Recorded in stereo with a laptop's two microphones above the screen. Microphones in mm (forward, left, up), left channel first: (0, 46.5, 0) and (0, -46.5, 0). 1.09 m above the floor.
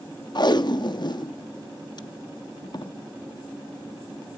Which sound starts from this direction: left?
Tape being pulled, at 0.3 s.